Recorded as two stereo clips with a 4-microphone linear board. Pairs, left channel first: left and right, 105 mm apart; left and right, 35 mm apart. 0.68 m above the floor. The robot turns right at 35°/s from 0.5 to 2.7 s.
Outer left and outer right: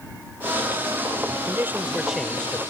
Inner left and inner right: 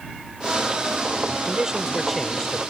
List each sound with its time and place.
1.5 s a man speaking: 30° right; by 2.6 s 10° left